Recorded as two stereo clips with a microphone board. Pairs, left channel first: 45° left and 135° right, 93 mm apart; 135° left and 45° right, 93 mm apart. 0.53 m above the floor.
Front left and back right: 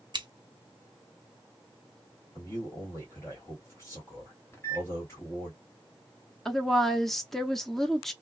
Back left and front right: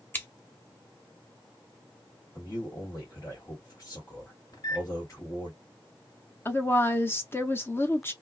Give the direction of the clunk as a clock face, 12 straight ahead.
No clunk in this recording.